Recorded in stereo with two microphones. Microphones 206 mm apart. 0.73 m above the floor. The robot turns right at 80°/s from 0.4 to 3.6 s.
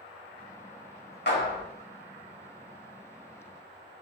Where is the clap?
60° left (ahead or behind), 1.3 m; by 1.6 s 45° left (ahead or behind), 1.3 m.